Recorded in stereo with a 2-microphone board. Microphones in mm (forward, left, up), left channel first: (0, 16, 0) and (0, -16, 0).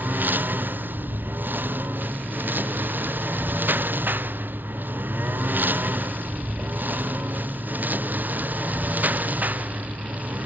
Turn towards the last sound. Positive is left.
turn(degrees=-55)  # may be behind; listen again after turning